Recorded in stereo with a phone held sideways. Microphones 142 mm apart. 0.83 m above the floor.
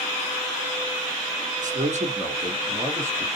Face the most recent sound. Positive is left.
turn(degrees=-15)  # may be behind; listen again after turning